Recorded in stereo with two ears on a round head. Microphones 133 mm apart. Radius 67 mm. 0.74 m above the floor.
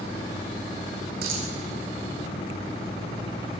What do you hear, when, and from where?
1.2 s a dropped coin: 75° right (ahead or behind), 6 m